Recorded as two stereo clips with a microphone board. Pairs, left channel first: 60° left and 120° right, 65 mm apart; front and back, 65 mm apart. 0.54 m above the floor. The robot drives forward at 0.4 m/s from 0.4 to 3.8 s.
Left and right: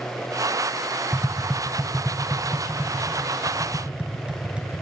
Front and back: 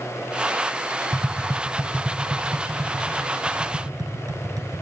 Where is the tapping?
125° left, 0.5 m; by 4.8 s 165° left, 1.4 m.